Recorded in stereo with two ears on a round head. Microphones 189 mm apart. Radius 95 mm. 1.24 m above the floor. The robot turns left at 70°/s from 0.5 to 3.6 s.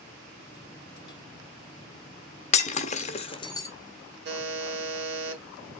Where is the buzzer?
60° right (ahead or behind), 1.6 m.